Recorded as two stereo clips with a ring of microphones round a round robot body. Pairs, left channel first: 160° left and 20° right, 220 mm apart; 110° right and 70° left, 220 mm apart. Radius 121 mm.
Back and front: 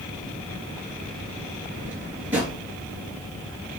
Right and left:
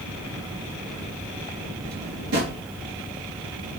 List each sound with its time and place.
1.9 s a drawer: 60° left, 3.5 m